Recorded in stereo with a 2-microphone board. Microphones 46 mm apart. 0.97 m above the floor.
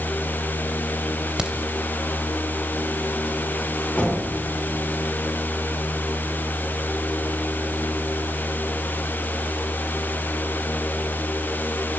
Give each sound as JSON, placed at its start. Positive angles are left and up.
{"t": 1.4, "sound": "a crack", "side_deg": -20, "distance_m": 2.0}
{"t": 4.0, "sound": "knocking", "side_deg": 30, "distance_m": 7.5}